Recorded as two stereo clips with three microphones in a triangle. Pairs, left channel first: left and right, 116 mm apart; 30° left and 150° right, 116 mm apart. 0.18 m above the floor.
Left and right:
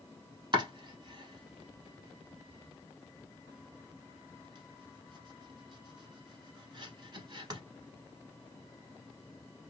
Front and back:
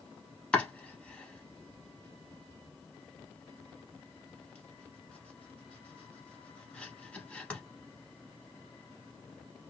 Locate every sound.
0.5 s chopping: 50° right, 1.0 m